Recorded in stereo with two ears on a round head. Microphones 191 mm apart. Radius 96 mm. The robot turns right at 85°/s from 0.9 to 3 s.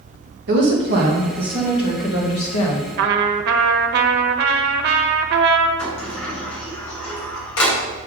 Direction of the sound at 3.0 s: 50° right (ahead or behind).